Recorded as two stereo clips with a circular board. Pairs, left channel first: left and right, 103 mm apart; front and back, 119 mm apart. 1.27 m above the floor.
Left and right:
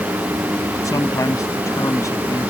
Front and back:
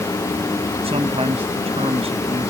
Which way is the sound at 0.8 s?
145° left.